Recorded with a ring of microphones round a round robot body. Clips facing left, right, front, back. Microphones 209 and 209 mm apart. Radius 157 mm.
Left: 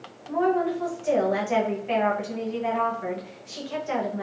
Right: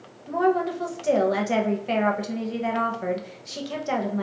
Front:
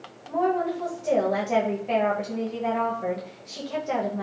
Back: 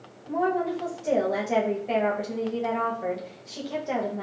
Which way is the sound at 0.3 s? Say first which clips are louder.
Right 1 dB, front 1 dB; 100° right.